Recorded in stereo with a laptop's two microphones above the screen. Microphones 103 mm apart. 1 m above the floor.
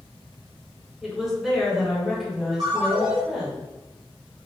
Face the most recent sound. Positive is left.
turn(degrees=-65)  # may be behind; listen again after turning